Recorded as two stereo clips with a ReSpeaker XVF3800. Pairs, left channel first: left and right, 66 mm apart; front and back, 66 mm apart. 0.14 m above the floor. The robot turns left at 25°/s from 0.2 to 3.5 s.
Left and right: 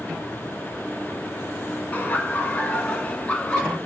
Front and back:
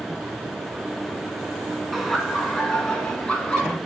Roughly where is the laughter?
Left.